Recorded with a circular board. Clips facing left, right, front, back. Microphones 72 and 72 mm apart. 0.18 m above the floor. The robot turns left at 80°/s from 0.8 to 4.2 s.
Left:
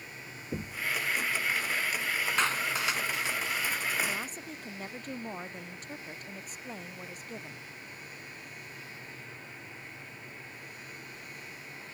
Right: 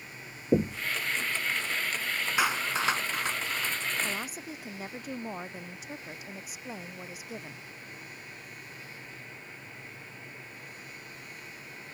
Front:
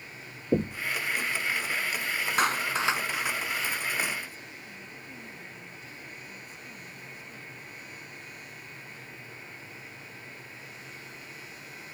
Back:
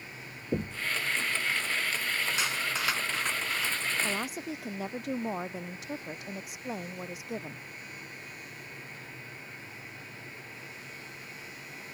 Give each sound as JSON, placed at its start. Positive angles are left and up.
{"t": 0.5, "sound": "knocking", "azimuth_deg": -60}
{"t": 2.4, "sound": "a clap", "azimuth_deg": -10}
{"t": 4.0, "sound": "a woman speaking", "azimuth_deg": -160}